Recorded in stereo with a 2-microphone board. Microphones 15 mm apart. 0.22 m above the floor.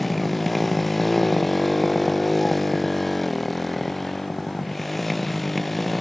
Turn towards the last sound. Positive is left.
turn(degrees=5)  # may be behind; listen again after turning